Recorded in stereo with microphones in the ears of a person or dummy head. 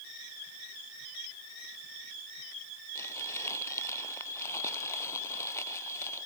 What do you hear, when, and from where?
3.0 s crumpling: 15° left (ahead or behind)